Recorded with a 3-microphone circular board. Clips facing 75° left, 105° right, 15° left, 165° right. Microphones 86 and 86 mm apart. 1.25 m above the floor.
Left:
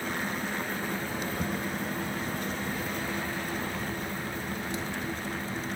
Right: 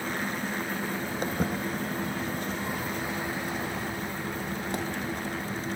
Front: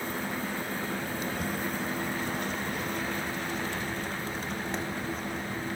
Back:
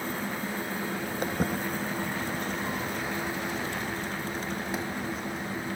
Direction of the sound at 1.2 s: 140° right.